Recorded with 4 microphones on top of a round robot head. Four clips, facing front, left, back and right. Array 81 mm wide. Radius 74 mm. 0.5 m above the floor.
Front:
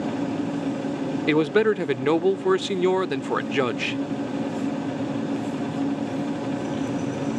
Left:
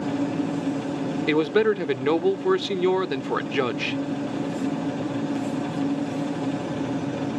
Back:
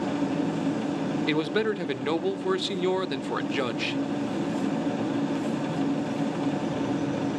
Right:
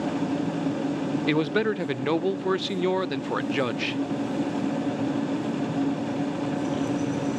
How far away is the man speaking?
About 0.7 m.